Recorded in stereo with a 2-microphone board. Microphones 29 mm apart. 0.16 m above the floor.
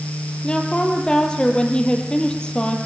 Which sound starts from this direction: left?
A woman speaking, at 0.4 s.